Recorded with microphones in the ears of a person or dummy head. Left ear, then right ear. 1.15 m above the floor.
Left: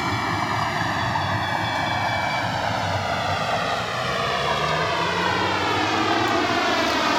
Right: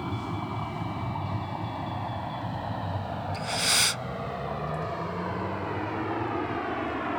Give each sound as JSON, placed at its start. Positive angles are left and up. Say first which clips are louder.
{"t": 0.0, "sound": "a vehicle", "louder": "left 11 dB", "side_deg": 70}
{"t": 3.3, "sound": "breathing", "louder": "left 3 dB", "side_deg": -50}